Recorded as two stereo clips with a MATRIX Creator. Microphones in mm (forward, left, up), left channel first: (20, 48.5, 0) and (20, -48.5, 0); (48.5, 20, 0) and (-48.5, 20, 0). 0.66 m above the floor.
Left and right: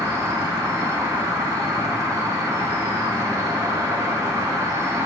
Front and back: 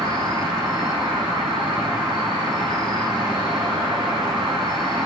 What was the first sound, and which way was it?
An insect, 145° right.